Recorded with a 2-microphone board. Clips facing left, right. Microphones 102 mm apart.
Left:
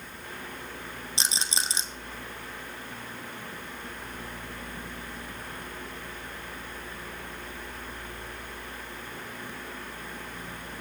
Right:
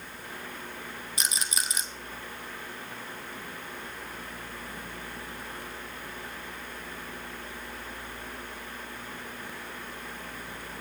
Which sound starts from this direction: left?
A rattle, at 1.2 s.